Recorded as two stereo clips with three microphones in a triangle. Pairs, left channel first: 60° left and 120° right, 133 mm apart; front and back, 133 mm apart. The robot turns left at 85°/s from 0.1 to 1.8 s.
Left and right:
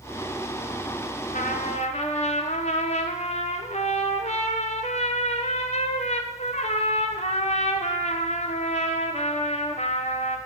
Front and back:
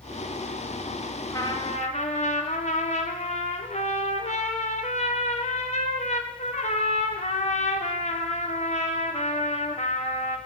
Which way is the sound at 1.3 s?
70° left.